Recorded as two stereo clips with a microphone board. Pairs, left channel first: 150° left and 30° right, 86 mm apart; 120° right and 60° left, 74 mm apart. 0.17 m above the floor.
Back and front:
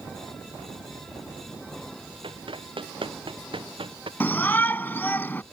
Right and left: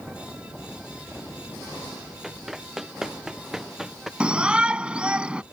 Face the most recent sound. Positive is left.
turn(degrees=115)